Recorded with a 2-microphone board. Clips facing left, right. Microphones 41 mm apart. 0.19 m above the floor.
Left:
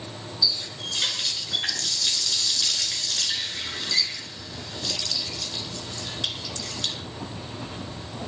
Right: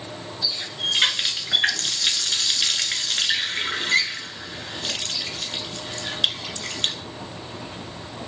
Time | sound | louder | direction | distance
0.4 | a running tap | right 2 dB | 50° right (ahead or behind) | 1.8 m